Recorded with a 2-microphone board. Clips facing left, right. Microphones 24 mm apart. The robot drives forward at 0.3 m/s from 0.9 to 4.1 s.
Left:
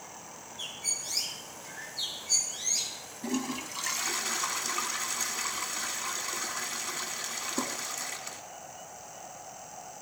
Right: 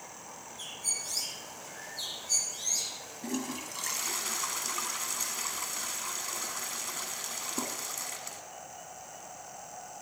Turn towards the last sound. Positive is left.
turn(degrees=10)  # may be behind; listen again after turning